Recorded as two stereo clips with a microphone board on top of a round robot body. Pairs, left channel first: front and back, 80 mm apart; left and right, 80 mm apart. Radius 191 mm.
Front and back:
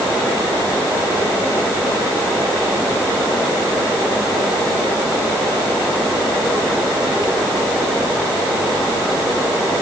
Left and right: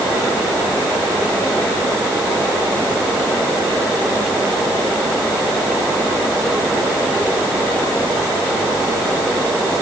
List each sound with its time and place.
Only background noise.